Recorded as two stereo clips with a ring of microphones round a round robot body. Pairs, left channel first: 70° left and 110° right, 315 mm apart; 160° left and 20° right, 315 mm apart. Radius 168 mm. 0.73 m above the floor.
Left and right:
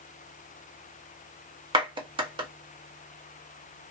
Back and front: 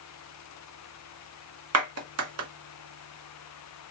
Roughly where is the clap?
Ahead right.